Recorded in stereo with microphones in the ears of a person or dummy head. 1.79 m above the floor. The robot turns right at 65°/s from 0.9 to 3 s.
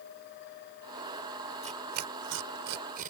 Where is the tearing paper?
35° right (ahead or behind); by 3.1 s 50° right (ahead or behind).